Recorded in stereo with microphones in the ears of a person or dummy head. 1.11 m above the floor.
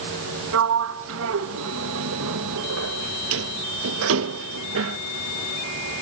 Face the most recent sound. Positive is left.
turn(degrees=-70)  # may be behind; listen again after turning